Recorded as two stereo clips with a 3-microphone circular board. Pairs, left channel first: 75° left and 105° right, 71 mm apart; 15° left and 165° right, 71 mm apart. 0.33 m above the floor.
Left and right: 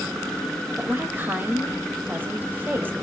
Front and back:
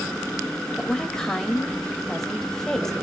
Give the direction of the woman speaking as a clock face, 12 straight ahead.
2 o'clock.